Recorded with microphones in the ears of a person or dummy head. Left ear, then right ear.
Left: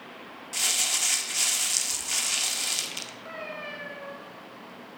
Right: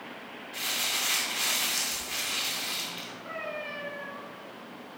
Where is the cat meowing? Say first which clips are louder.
Right 4 dB; 40° left (ahead or behind), 2 m.